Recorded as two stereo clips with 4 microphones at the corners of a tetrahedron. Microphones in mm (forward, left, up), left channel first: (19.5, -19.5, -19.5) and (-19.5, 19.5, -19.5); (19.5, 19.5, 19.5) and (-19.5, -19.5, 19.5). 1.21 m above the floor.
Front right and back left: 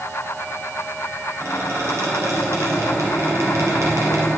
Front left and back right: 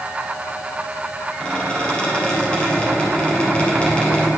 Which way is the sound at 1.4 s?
115° left.